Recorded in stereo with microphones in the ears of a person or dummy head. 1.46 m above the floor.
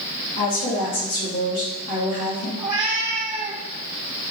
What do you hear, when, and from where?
0.4 s a woman speaking: 50° left (ahead or behind), 1.8 m
2.6 s a cat meowing: 10° right (ahead or behind), 1.5 m